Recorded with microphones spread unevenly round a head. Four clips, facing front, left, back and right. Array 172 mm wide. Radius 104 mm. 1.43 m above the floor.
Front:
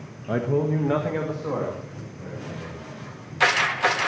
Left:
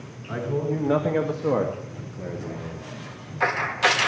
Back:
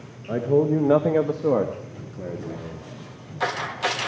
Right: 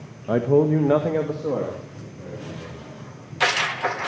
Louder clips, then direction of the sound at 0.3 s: Right 9 dB, back 3 dB; 105° right.